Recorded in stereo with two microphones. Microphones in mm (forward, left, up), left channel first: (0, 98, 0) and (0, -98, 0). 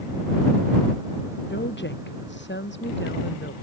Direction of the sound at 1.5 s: 65° left (ahead or behind).